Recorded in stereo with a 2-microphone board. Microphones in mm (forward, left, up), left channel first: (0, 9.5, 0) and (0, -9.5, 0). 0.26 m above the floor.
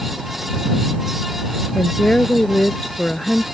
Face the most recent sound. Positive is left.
turn(degrees=70)  # may be behind; listen again after turning